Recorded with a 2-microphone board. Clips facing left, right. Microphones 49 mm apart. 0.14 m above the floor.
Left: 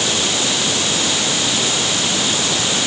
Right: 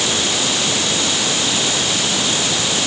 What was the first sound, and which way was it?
Only background noise.